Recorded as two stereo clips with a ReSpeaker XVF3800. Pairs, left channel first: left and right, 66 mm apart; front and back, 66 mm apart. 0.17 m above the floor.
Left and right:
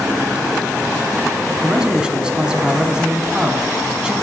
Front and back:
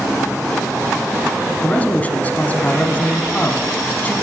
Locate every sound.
1.6 s a man speaking: 30° right, 1.1 m